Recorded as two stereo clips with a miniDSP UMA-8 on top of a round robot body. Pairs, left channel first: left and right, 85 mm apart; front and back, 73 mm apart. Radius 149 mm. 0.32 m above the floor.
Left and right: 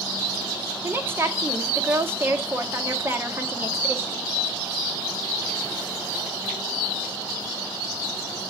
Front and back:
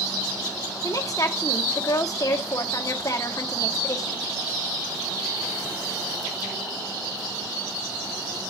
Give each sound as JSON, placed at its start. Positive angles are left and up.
{"t": 0.8, "sound": "a woman speaking", "azimuth_deg": -30, "distance_m": 2.0}